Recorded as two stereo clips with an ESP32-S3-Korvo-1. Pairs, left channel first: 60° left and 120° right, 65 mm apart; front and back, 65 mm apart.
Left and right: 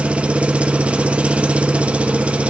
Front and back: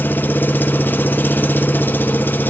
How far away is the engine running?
About 0.8 m.